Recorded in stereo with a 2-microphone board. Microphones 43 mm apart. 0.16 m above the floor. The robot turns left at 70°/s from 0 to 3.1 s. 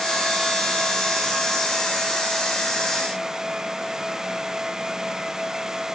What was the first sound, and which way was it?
Only background noise.